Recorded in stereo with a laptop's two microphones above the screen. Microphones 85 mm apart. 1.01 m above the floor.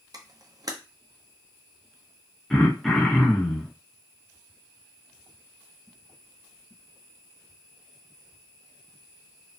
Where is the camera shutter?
45° right (ahead or behind), 0.5 m.